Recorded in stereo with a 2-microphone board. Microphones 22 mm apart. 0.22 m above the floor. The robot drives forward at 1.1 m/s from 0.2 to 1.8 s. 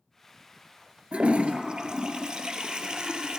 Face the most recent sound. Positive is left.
turn(degrees=-45)  # may be behind; listen again after turning